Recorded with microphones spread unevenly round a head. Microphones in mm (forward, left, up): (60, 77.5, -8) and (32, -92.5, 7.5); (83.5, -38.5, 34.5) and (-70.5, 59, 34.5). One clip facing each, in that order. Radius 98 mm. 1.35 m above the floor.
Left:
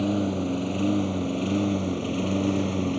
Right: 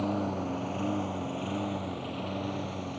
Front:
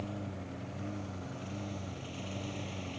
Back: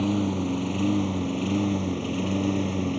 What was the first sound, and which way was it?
A lawn mower, 145° left.